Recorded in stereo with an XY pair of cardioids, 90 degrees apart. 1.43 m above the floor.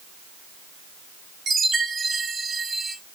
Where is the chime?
50° right, 4 m.